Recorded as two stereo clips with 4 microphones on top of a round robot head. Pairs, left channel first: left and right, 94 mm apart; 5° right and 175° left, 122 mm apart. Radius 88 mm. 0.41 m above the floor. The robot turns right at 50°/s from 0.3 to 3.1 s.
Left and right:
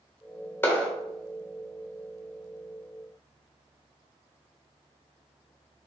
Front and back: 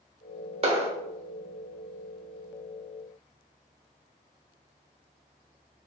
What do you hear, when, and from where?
0.6 s a clap: 150° left, 1.2 m; by 0.9 s 165° left, 1.2 m